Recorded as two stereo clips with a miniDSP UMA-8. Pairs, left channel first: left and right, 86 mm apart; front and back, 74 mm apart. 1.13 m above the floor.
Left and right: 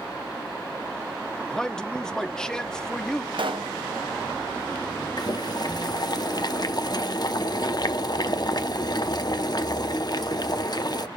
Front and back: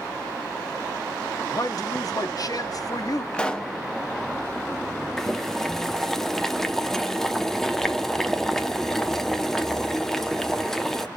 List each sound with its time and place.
1.5 s a man speaking: 10° left, 0.8 m
3.3 s a pop: 75° right, 0.8 m
5.2 s boiling: 85° left, 0.8 m